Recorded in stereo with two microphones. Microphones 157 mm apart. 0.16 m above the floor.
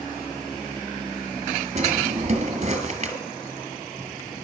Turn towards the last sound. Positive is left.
turn(degrees=-45)  # may be behind; listen again after turning